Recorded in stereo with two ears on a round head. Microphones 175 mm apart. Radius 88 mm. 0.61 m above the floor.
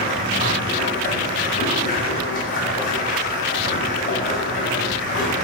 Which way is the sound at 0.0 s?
50° left (ahead or behind).